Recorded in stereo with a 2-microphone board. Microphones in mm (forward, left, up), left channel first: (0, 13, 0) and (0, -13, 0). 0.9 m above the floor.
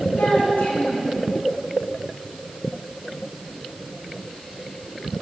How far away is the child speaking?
About 7.5 m.